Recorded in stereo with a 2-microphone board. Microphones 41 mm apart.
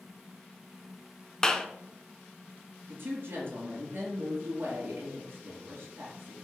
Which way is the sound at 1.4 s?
15° left (ahead or behind).